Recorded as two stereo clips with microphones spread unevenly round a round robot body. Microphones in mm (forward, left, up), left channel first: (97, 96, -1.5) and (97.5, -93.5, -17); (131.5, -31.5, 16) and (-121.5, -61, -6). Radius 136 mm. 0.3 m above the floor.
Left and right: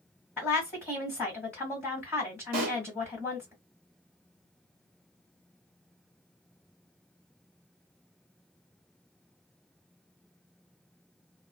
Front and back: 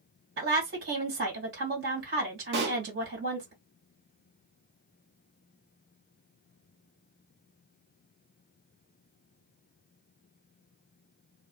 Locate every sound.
0.4 s a woman speaking: 175° left, 1.8 m
2.5 s a pop: 125° right, 1.1 m